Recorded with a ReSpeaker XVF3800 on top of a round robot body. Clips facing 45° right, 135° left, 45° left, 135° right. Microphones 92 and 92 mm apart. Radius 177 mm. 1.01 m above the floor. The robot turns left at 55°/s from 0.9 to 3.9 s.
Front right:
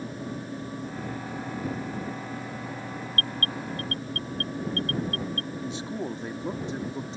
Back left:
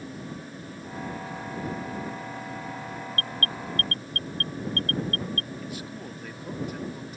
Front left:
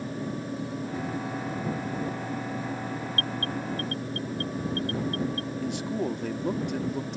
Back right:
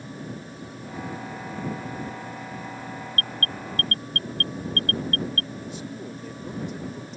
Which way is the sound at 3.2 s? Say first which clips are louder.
Front right 2 dB, front left 2 dB; 90° right.